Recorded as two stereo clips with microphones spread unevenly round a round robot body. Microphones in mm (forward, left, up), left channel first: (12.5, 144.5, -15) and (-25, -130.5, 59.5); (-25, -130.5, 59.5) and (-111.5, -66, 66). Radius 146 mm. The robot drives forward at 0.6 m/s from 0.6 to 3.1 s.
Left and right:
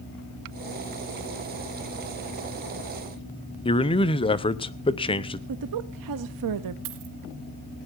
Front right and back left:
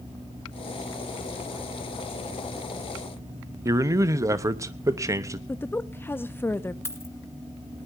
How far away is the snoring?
I don't hear snoring.